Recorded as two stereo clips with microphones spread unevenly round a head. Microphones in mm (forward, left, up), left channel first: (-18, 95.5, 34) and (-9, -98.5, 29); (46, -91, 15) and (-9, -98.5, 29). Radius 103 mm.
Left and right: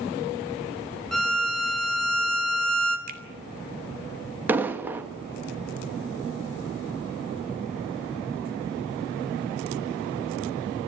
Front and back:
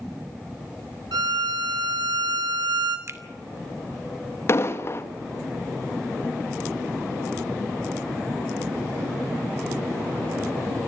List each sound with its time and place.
1.1 s a violin: straight behind, 2 m
3.1 s a finger snap: 135° right, 2.5 m
4.5 s an explosion: 10° right, 1.6 m